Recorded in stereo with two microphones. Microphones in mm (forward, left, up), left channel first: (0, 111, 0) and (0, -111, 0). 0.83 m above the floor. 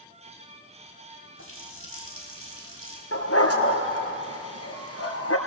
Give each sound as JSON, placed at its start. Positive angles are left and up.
{"t": 1.4, "sound": "a running tap", "side_deg": -75, "distance_m": 4.0}
{"t": 3.1, "sound": "a dog barking", "side_deg": 80, "distance_m": 3.5}